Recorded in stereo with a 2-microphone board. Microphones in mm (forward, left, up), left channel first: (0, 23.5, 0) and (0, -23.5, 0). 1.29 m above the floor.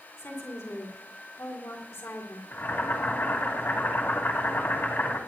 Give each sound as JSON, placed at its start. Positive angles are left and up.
{"t": 0.2, "sound": "a woman speaking", "side_deg": 80, "distance_m": 3.5}
{"t": 2.5, "sound": "boiling", "side_deg": 60, "distance_m": 2.5}